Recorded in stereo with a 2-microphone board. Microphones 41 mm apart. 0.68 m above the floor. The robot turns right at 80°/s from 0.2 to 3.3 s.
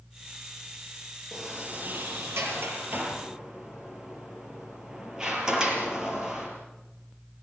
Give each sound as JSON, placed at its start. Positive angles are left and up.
{"t": 1.3, "sound": "a sliding door", "side_deg": -5, "distance_m": 6.0}